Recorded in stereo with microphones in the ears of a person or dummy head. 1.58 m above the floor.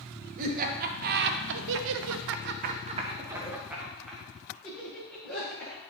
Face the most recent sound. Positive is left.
turn(degrees=10)  # may be behind; listen again after turning